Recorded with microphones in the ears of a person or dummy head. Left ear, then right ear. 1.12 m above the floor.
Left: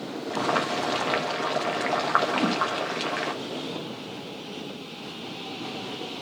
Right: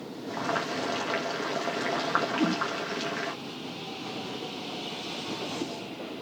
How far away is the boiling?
About 1.3 m.